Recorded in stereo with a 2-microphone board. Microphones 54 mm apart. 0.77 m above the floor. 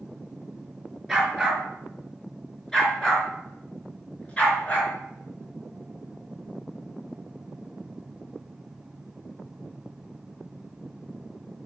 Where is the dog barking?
5° left (ahead or behind), 5.5 m; by 4.9 s 25° left (ahead or behind), 4.5 m.